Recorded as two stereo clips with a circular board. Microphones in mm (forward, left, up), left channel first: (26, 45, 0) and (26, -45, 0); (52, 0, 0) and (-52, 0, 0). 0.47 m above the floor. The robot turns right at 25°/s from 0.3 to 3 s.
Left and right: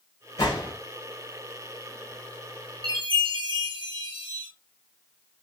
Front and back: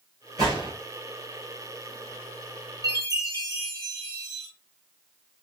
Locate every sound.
0.4 s a gunshot: 135° left, 1.8 m; by 0.7 s 140° left, 1.8 m
2.8 s a chime: 130° right, 1.8 m; by 4.5 s 125° right, 1.8 m